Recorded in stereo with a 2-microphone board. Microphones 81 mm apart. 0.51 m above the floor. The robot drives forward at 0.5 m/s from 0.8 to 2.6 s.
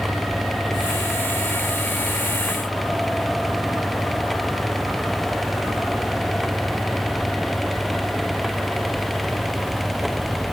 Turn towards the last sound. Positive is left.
No sound to turn to.